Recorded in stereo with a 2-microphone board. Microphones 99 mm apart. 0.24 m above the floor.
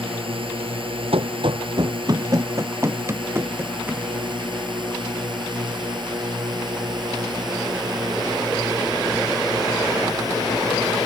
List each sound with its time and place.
0.0 s a drone: 65° right (ahead or behind); by 11.1 s 40° right (ahead or behind)
1.1 s running footsteps: 70° right (ahead or behind); by 4.1 s 20° right (ahead or behind)